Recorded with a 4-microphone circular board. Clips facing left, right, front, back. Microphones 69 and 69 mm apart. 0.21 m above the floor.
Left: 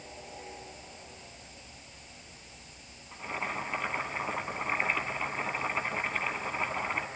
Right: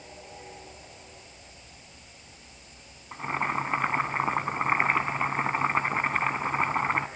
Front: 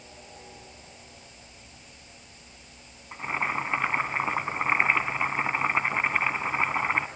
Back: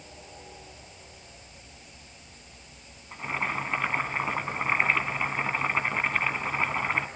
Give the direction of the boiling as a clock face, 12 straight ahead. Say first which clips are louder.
Right 7 dB, front 2 dB; 2 o'clock.